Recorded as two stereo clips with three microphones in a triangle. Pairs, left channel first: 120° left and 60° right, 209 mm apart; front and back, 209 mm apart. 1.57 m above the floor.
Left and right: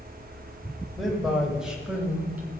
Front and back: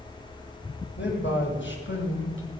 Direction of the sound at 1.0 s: 30° left.